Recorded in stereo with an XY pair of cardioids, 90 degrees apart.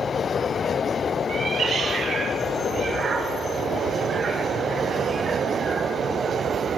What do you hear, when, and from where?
1.3 s a cat meowing: 60° right, 3 m; by 5.9 s 40° right, 8.5 m